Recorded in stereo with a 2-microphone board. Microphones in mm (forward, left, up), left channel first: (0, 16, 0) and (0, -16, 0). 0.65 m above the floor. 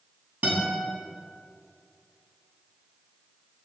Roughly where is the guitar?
Right.